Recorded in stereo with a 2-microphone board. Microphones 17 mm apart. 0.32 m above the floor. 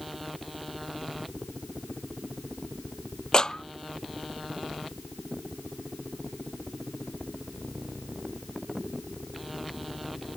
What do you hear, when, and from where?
3.3 s a clap: 45° left (ahead or behind)